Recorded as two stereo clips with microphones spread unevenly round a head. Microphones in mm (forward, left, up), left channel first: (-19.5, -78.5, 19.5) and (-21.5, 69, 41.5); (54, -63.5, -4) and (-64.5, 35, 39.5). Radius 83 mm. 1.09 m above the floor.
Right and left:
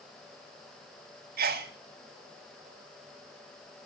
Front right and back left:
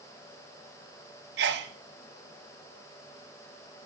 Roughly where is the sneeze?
Left.